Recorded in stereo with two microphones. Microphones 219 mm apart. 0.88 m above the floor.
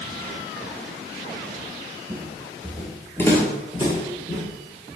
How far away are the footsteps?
About 0.9 m.